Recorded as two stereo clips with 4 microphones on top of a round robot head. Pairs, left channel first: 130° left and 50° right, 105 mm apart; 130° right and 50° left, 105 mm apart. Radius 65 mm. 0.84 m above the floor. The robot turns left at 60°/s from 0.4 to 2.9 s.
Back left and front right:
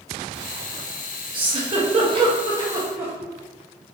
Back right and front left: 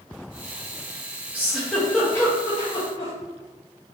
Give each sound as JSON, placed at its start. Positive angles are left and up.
{"t": 1.3, "sound": "a giggle", "azimuth_deg": -20, "distance_m": 1.1}